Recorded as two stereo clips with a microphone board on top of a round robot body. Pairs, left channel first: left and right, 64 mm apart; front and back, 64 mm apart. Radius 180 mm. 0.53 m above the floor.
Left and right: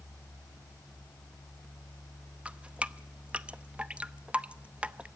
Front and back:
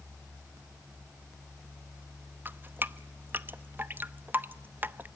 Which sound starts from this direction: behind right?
Dripping, at 2.5 s.